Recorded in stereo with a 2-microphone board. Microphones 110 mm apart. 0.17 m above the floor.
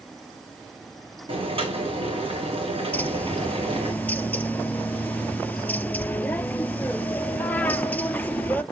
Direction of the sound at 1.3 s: 55° right (ahead or behind).